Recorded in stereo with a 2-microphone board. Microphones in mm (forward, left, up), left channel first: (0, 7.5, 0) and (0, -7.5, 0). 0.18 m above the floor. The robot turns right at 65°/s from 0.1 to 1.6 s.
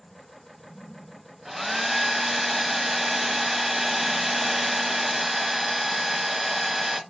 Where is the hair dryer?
20° right (ahead or behind), 0.9 m; by 7.0 s 10° right (ahead or behind), 0.9 m.